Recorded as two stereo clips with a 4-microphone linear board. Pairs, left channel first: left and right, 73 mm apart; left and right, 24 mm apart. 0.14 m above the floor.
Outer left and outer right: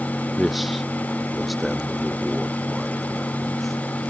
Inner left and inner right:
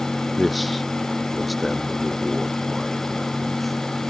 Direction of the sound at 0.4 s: Centre (ahead or behind).